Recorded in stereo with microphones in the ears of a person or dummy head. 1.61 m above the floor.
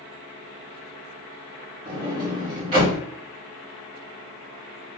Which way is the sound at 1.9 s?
30° right (ahead or behind).